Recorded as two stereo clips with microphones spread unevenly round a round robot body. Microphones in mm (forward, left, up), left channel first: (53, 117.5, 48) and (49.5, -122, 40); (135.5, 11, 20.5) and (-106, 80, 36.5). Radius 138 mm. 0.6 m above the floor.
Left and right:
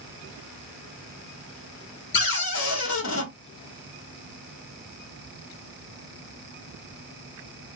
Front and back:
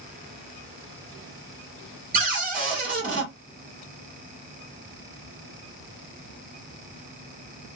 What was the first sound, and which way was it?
A cupboard door, 110° left.